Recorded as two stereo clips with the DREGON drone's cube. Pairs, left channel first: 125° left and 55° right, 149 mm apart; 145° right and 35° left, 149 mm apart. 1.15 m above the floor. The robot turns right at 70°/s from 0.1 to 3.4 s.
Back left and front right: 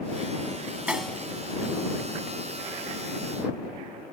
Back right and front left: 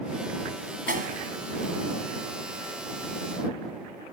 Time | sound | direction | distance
0.9 | a snare drum | 25° left | ?